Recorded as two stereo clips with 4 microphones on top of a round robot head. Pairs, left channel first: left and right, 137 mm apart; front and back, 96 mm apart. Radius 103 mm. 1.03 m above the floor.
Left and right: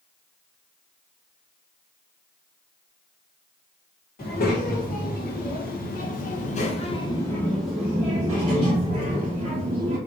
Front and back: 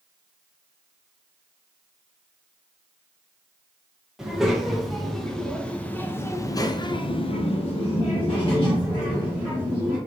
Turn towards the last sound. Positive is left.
turn(degrees=-45)